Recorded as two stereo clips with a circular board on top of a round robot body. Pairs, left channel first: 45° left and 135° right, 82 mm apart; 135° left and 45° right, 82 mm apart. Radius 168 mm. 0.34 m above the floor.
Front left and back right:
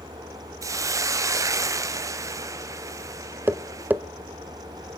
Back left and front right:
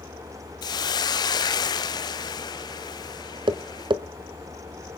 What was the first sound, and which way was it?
A hiss, 175° left.